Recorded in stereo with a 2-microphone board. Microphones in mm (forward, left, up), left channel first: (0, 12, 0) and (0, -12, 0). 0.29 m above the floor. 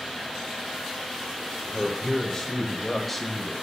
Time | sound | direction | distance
1.6 | a man speaking | 20° left (ahead or behind) | 1.2 m